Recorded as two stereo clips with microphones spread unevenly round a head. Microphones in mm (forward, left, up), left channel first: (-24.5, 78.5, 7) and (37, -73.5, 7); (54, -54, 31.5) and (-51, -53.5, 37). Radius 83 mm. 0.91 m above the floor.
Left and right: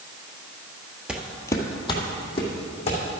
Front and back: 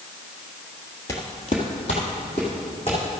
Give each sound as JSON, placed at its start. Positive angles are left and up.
{"t": 1.1, "sound": "footsteps", "azimuth_deg": 0, "distance_m": 0.9}